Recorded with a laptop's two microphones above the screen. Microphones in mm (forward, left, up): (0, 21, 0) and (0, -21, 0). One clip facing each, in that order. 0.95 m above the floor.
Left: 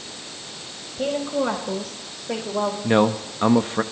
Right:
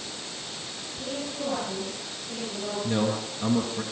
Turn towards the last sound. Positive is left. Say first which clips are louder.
# left 8 dB
turn(degrees=50)  # may be behind; listen again after turning